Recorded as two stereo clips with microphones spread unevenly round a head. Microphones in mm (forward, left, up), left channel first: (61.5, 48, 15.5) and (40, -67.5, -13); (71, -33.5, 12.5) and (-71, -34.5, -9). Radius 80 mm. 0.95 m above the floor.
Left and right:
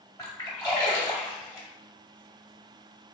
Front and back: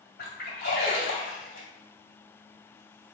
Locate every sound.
0.2 s a splash: 15° left, 1.9 m